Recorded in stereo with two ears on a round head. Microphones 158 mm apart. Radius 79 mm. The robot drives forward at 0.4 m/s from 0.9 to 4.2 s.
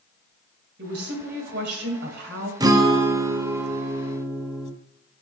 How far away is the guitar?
About 0.6 m.